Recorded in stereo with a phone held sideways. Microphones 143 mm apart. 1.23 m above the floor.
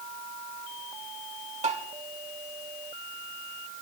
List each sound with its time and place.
1.6 s tapping: 50° right (ahead or behind), 2 m